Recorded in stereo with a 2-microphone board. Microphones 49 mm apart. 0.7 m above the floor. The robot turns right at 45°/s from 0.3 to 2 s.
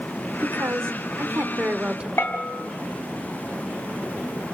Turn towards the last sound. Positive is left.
turn(degrees=55)  # may be behind; listen again after turning